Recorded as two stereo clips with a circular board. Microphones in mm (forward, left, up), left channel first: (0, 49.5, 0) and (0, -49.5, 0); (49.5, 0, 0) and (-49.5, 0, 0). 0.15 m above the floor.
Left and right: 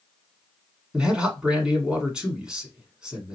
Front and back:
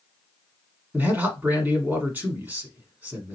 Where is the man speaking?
155° right, 1.3 m.